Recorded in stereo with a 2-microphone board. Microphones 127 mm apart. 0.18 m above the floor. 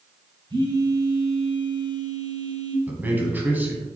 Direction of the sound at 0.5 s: 35° right (ahead or behind).